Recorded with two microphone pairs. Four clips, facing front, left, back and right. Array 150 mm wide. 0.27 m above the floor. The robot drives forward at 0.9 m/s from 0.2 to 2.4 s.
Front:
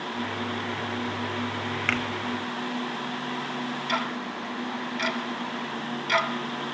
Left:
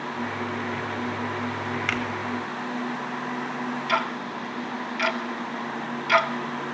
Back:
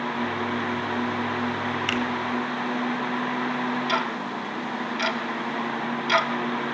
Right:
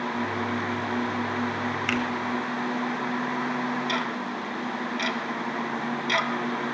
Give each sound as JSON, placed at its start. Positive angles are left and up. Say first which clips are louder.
{"t": 1.9, "sound": "a finger snap", "louder": "right 3 dB, even", "azimuth_deg": 20, "distance_m": 1.4}
{"t": 3.9, "sound": "ticking", "louder": "left 2 dB, back 3 dB", "azimuth_deg": 110, "distance_m": 1.0}